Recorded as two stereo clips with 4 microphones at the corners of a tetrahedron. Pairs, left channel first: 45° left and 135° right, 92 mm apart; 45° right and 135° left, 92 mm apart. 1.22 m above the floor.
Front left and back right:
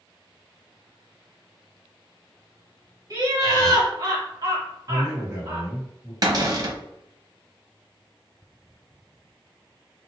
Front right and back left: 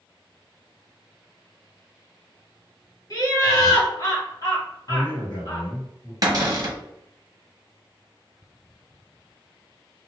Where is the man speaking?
80° right, 1.9 m.